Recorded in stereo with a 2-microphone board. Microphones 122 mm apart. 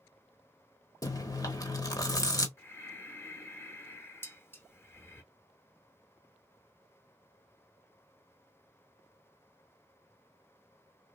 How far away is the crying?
No crying in this recording.